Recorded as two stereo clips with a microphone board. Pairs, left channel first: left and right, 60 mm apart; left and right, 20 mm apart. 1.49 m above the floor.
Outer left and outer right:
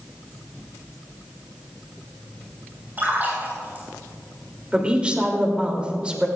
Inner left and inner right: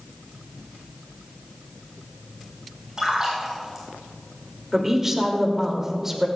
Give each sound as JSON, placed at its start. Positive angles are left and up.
{"t": 3.0, "sound": "a splash", "side_deg": -30, "distance_m": 5.0}
{"t": 4.7, "sound": "a woman speaking", "side_deg": -20, "distance_m": 2.5}